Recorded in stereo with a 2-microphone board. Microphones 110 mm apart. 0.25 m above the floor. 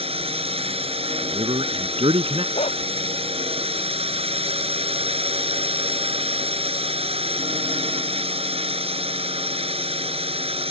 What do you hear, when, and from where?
0.0 s a drone: 65° right (ahead or behind)
1.2 s a man speaking: 65° right (ahead or behind)
2.5 s a dog barking: 80° left